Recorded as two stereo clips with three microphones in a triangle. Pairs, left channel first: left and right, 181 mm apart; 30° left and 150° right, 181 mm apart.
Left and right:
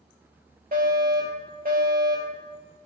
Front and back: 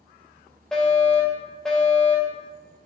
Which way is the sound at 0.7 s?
55° right.